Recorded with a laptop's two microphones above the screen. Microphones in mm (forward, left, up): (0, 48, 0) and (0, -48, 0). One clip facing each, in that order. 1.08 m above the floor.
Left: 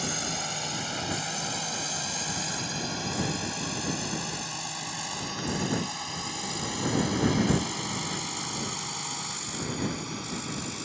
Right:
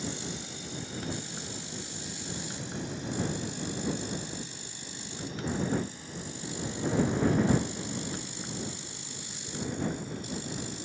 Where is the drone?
80° left; by 10.9 s 85° left.